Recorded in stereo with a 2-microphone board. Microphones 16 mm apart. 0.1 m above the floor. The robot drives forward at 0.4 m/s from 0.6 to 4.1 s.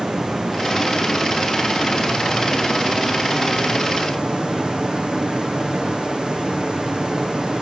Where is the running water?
60° right (ahead or behind), 3.5 m; by 7.6 s 80° right, 3.5 m.